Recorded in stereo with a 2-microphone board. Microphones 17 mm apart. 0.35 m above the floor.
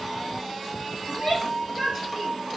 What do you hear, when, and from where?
1.1 s a shout: 35° right (ahead or behind), 6.5 m